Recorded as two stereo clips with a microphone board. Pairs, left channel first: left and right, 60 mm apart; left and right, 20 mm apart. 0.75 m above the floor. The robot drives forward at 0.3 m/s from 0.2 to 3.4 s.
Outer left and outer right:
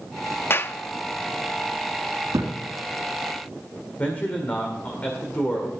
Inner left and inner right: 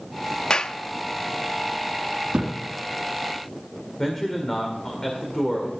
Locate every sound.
0.5 s a clap: 40° left (ahead or behind), 0.6 m; by 0.8 s 45° left (ahead or behind), 0.6 m
2.3 s a thud: 85° right, 2.5 m
4.0 s a man speaking: 30° left (ahead or behind), 1.9 m